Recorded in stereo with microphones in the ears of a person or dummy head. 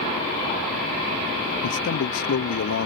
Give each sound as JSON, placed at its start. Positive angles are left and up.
{"t": 1.6, "sound": "a man speaking", "side_deg": 80}